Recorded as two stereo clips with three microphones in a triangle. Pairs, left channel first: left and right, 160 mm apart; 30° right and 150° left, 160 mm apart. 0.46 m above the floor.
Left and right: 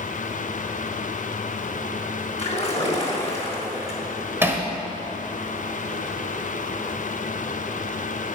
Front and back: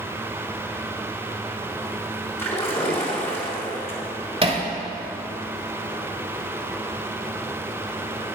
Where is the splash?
45° left, 3.5 m.